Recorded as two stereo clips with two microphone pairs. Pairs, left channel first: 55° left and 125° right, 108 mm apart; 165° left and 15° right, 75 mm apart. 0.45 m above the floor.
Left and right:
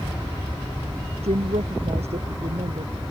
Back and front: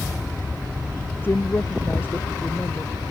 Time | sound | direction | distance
1.2 | a woman speaking | 135° right | ?